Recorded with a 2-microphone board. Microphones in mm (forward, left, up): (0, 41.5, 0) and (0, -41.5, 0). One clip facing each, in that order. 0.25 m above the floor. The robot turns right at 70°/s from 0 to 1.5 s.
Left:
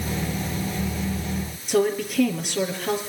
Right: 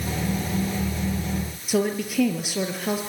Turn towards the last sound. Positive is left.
turn(degrees=-5)  # may be behind; listen again after turning